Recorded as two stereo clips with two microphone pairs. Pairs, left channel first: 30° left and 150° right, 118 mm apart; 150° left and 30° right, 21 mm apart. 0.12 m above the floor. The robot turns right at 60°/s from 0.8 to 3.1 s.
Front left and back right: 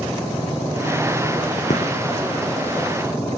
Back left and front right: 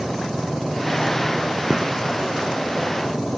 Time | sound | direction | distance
1.7 | a gunshot | 35° left | 6 m